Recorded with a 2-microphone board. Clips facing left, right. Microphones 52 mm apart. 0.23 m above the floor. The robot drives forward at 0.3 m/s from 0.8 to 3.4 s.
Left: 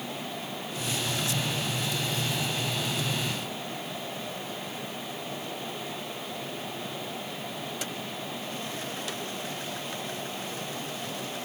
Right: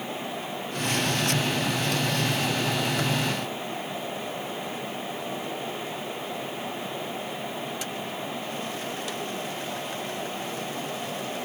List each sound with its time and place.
Only background noise.